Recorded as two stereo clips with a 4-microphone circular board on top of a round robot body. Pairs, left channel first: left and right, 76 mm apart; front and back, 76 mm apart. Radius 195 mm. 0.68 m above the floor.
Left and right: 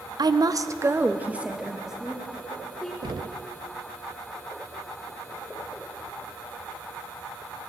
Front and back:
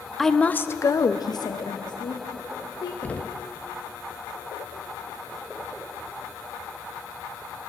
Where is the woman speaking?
90° right, 0.8 m; by 2.9 s 5° left, 2 m.